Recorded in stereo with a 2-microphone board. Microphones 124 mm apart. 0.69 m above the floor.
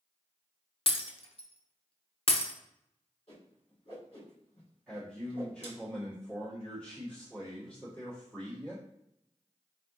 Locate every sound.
0.9 s breaking glass: 50° left (ahead or behind), 0.6 m
3.3 s a whoosh: 50° left (ahead or behind), 1.9 m
4.9 s a man speaking: 5° left (ahead or behind), 1.6 m